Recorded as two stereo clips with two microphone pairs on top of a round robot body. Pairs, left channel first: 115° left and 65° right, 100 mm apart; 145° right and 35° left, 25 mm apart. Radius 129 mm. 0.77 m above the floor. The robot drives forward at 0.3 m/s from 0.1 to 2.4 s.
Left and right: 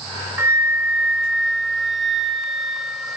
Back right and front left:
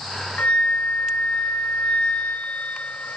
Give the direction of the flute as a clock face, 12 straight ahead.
4 o'clock.